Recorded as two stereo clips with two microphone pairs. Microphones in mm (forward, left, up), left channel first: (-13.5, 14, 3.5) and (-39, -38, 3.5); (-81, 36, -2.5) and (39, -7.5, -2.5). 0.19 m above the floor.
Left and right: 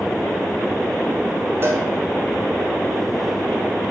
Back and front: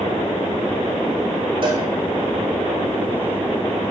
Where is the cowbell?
65° right, 2 m.